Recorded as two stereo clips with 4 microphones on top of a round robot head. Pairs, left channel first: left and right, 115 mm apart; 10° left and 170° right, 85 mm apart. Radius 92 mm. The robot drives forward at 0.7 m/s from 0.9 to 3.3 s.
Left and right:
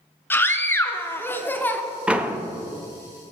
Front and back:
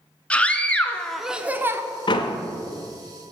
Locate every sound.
0.3 s a scream: 55° left, 0.8 m; by 1.8 s 155° left, 0.9 m
2.1 s a door slam: 10° right, 0.8 m; by 2.4 s 15° right, 0.7 m